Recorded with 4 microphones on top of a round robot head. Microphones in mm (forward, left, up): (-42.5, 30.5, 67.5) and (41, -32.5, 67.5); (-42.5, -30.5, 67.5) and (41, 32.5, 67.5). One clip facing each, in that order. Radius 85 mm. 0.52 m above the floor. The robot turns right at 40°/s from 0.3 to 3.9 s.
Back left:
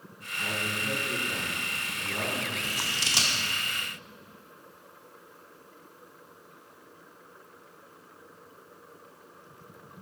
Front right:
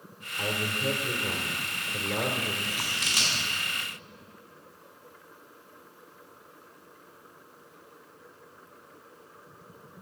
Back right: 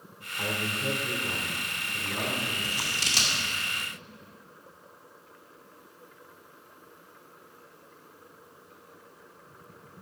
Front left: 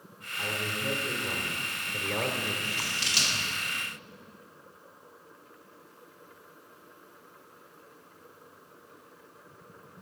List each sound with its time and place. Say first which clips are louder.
0.4 s a man speaking: front right 3 dB, back right 2 dB; 80° right, 1.9 m; by 2.5 s 5° left, 1.9 m
2.6 s scissors: even, back right 1 dB; 175° left, 2 m; by 3.4 s 155° right, 2 m